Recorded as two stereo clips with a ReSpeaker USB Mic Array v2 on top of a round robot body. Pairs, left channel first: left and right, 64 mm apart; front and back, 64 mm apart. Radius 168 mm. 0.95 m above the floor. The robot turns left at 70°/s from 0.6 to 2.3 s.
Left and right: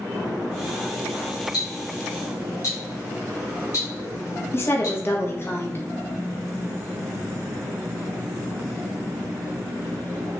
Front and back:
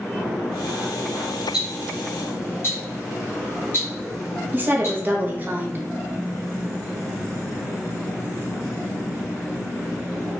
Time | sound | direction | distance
1.5 | ticking | 110° left | 0.8 m
4.5 | a woman speaking | 130° left | 0.8 m